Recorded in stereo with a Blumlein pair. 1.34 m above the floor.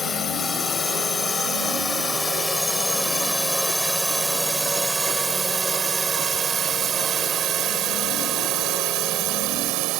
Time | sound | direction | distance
0.0 | a drone | 20° left | ?